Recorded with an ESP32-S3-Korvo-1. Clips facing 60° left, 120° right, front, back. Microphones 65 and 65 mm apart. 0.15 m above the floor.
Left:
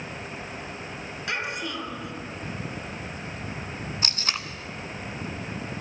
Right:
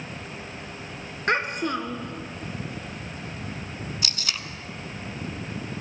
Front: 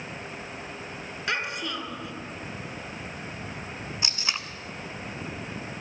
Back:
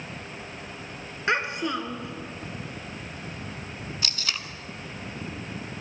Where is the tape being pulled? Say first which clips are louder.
Left 2 dB, front 2 dB; 50° left, 0.8 m.